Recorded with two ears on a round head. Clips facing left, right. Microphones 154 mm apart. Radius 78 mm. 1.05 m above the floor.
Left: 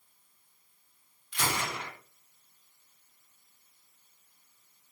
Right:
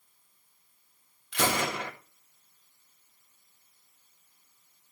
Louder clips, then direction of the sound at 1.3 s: Right 5 dB; 55° right (ahead or behind).